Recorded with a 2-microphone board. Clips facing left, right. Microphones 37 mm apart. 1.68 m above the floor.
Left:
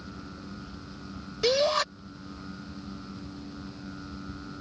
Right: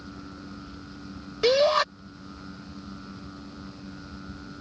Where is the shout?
20° right (ahead or behind).